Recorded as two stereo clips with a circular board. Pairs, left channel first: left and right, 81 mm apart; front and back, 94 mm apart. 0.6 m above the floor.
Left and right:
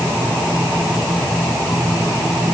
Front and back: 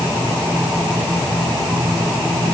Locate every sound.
Only background noise.